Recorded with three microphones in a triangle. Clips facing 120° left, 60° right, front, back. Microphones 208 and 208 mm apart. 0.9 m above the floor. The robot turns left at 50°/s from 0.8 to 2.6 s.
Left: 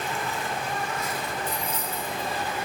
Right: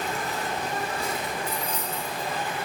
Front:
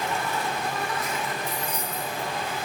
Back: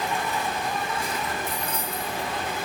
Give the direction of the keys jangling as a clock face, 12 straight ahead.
6 o'clock.